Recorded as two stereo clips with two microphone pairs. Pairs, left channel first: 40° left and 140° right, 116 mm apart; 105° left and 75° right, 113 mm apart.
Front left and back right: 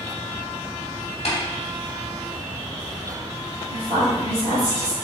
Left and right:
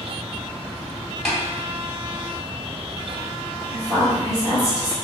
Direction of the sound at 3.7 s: 45° left.